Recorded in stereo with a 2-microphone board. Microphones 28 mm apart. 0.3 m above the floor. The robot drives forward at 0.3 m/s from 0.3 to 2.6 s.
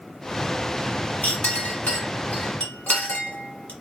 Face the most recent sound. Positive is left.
turn(degrees=60)  # may be behind; listen again after turning